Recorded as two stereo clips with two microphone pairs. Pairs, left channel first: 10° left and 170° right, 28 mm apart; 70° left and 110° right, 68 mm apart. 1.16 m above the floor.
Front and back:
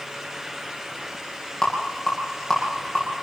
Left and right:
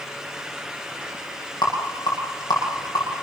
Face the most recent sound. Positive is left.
turn(degrees=80)